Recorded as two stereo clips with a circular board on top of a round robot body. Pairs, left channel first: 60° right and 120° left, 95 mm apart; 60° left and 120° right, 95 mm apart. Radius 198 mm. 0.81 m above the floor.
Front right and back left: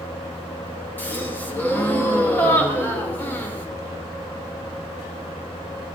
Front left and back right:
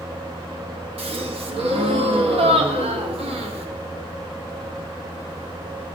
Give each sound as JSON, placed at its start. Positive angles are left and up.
{"t": 1.0, "sound": "a gasp", "azimuth_deg": -130, "distance_m": 1.2}